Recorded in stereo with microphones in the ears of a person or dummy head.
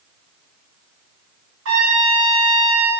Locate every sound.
1.6 s a trumpet: 70° right (ahead or behind), 2.5 m